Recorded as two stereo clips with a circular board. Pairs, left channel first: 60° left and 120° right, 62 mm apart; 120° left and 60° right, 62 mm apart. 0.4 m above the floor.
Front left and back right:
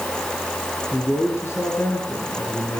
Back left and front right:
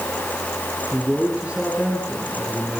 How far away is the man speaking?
About 7.5 m.